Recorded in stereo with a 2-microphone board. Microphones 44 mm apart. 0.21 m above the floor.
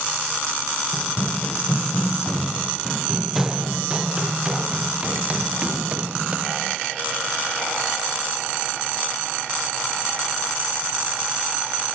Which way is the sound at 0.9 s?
50° left (ahead or behind).